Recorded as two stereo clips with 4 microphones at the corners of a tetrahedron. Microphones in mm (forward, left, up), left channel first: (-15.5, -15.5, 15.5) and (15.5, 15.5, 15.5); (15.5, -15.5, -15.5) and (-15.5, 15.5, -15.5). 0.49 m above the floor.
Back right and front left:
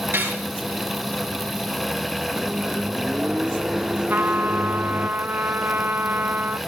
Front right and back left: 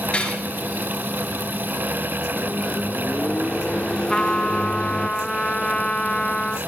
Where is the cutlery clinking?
20° left, 4.5 m.